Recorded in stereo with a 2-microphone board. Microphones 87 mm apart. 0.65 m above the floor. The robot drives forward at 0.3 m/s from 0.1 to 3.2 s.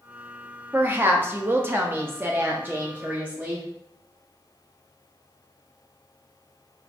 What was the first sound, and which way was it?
A woman speaking, 20° right (ahead or behind).